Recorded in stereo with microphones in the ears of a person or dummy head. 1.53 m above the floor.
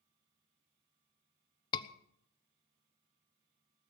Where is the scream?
25° left (ahead or behind), 1.1 m.